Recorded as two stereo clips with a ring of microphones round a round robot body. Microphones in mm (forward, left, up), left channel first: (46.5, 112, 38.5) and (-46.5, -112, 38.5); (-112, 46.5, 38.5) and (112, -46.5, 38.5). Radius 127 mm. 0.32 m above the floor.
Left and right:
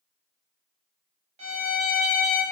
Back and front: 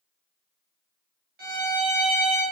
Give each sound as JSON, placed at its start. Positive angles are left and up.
{"t": 1.4, "sound": "a violin", "azimuth_deg": -60, "distance_m": 1.2}